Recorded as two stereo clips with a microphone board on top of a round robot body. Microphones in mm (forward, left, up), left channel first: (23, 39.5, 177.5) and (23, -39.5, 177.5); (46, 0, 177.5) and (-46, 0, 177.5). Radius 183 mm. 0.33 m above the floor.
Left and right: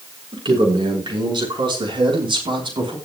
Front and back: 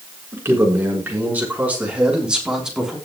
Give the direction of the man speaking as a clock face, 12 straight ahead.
4 o'clock.